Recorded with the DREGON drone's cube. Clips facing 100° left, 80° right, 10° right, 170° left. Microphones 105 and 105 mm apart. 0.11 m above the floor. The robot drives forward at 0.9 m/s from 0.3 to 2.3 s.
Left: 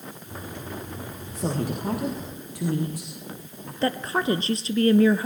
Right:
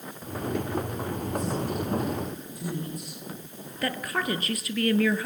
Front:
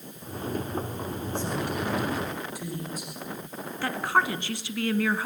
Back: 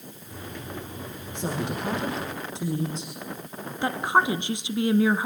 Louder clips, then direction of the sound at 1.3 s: Left 3 dB, back 1 dB; 100° left.